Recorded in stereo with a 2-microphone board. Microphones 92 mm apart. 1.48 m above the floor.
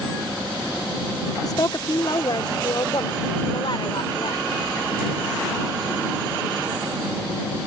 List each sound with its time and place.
1.4 s a woman speaking: 45° left (ahead or behind); by 4.5 s 65° left (ahead or behind)